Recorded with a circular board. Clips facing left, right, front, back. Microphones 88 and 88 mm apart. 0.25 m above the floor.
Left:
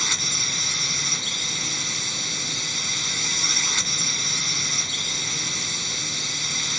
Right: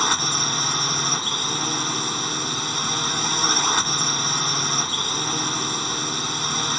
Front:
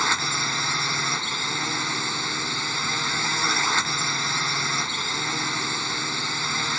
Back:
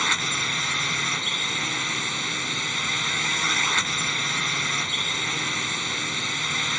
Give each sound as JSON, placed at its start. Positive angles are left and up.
{"t": 0.0, "sound": "a drone", "azimuth_deg": -70}